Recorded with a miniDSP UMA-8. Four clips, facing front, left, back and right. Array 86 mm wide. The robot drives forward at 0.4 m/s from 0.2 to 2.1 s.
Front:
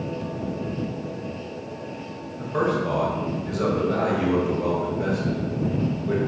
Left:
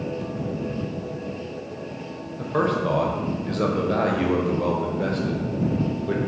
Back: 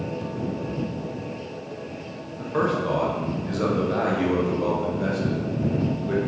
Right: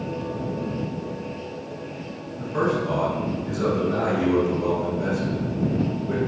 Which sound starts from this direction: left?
A man speaking, at 2.4 s.